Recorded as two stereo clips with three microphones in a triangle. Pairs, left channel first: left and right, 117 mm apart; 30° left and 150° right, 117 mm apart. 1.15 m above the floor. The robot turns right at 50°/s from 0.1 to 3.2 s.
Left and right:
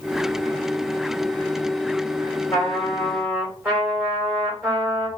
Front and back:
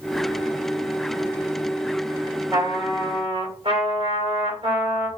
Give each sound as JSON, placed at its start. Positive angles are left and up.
{"t": 2.5, "sound": "a trumpet", "azimuth_deg": 155, "distance_m": 1.2}